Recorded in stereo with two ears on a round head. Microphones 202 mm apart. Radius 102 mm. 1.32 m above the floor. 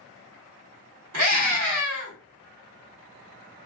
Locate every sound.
1.1 s a scream: 70° right (ahead or behind), 1.4 m